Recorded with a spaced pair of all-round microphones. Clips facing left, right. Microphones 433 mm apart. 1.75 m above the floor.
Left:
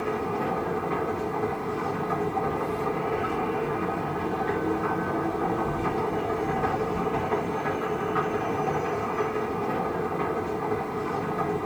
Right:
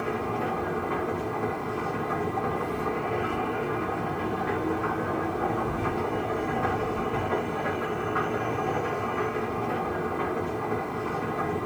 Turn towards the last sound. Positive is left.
turn(degrees=-65)  # may be behind; listen again after turning